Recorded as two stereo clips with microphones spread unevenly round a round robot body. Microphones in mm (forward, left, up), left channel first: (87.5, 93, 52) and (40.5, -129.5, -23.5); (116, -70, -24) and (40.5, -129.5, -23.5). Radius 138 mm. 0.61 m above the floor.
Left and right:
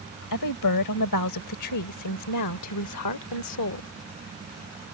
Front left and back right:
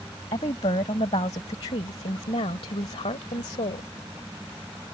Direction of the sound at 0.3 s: 95° left.